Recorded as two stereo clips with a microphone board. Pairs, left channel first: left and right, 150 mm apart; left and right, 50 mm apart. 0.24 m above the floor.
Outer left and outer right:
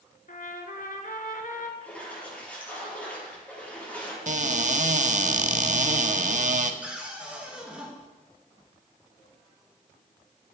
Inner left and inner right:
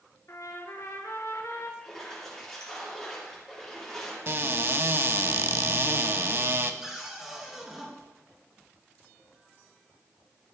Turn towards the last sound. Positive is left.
turn(degrees=-5)  # may be behind; listen again after turning